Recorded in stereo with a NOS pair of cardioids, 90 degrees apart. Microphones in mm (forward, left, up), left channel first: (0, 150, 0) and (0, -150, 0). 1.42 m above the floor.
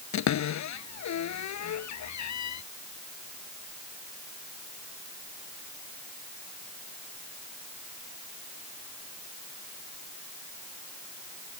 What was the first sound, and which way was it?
A cupboard door, 65° left.